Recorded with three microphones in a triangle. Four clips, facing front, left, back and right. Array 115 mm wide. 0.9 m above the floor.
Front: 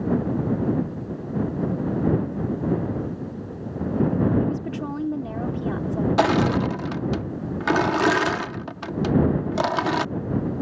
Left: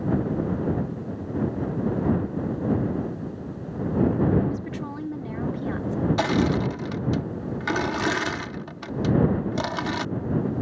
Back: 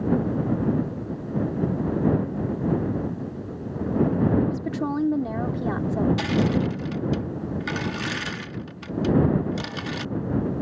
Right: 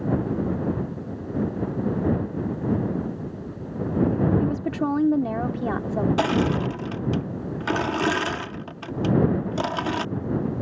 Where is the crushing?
15° right.